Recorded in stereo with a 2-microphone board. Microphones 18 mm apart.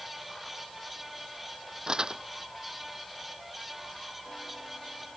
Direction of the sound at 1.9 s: 50° right (ahead or behind).